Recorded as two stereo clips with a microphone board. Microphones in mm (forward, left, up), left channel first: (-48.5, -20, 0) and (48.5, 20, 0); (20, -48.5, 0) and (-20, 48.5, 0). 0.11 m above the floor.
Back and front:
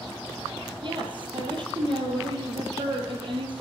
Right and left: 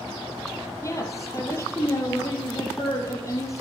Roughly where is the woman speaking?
Ahead.